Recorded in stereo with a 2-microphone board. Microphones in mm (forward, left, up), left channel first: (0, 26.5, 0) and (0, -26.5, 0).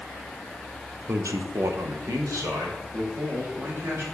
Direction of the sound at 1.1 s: 50° right (ahead or behind).